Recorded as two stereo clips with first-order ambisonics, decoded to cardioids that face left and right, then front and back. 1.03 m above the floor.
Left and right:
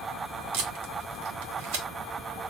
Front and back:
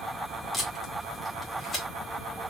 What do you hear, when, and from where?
0.5 s tape being pulled: 80° right, 1.9 m